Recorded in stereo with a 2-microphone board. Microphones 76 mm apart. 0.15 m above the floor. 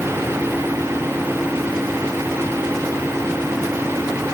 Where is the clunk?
I don't hear a clunk.